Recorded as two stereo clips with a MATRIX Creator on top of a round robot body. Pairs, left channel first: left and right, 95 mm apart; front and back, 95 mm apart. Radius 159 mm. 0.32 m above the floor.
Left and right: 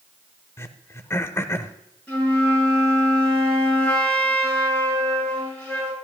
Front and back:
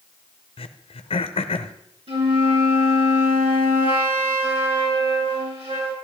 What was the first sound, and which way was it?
Throat clearing, 25° left.